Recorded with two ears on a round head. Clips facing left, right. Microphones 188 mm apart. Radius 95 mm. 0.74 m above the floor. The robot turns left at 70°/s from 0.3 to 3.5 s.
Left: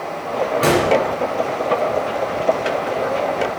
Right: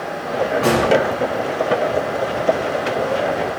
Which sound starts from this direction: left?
A gunshot, at 0.6 s.